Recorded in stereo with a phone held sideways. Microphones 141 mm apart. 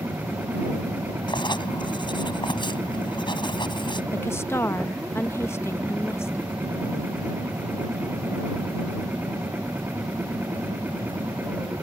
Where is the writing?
35° left (ahead or behind).